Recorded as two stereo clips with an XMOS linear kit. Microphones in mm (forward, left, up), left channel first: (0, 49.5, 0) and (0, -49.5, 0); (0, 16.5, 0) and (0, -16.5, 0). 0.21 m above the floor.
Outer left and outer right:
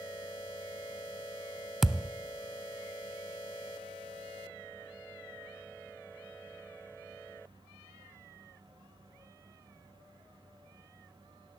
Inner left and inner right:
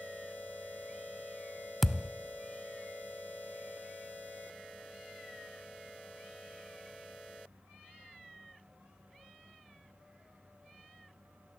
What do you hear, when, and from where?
1.8 s a thud: 5° right (ahead or behind), 0.8 m